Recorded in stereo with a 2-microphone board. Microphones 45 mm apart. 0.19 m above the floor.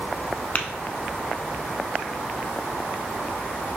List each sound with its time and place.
0.6 s tapping: 40° left (ahead or behind), 0.5 m